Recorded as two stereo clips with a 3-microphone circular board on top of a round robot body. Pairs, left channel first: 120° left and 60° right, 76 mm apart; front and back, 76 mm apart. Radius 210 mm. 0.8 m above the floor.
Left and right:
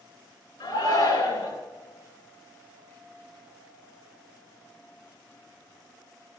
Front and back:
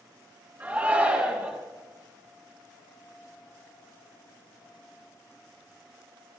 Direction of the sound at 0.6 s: 110° left.